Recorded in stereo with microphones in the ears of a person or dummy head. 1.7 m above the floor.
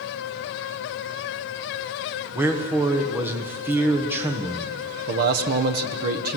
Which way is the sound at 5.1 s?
50° right (ahead or behind).